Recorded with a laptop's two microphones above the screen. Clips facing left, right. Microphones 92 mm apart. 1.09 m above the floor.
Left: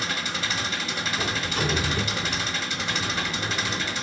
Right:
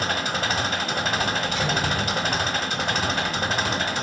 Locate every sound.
0.0 s an engine running: 55° right (ahead or behind), 1.3 m
1.2 s a sliding door: 50° left (ahead or behind), 3 m